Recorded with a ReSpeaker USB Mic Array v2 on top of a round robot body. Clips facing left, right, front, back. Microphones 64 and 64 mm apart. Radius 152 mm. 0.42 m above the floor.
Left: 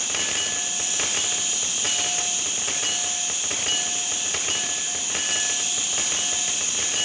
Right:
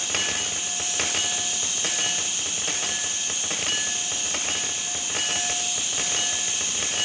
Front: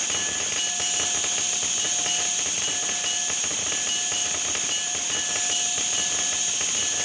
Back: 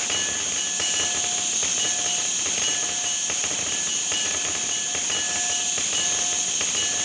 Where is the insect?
170° left, 2.5 m.